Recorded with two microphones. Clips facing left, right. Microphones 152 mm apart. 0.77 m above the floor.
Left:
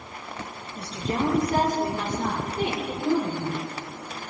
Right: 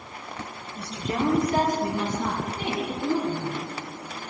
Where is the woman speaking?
30° left (ahead or behind), 4 m; by 3.6 s 75° left (ahead or behind), 4 m.